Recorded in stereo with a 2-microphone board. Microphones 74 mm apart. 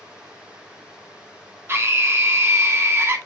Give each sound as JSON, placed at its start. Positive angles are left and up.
{"t": 1.7, "sound": "a scream", "side_deg": -35, "distance_m": 1.6}